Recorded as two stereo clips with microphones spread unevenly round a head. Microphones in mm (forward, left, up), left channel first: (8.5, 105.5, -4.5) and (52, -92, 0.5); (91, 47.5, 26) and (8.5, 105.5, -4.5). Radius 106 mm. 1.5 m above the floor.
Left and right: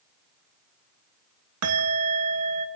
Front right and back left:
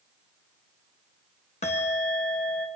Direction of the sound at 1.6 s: 85° right.